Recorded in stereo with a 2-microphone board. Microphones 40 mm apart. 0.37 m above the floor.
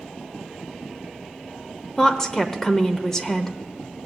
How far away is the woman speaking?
About 0.9 m.